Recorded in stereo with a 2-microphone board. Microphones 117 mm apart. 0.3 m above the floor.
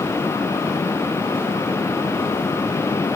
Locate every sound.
Only background noise.